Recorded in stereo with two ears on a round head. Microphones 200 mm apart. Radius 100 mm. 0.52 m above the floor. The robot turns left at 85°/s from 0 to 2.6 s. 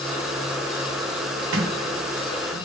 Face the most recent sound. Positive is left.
turn(degrees=25)  # may be behind; listen again after turning